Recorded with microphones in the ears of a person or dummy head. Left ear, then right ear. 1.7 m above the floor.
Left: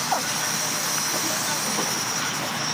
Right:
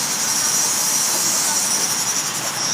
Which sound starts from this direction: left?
An insect, at 0.0 s.